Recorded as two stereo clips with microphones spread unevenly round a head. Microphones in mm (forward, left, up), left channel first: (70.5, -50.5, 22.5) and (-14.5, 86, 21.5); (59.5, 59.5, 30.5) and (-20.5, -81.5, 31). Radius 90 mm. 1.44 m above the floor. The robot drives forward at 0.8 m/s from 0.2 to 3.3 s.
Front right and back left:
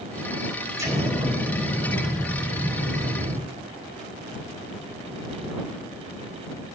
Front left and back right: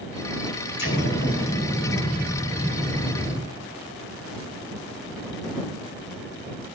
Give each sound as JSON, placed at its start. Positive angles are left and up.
{"t": 0.8, "sound": "an explosion", "azimuth_deg": 55, "distance_m": 4.5}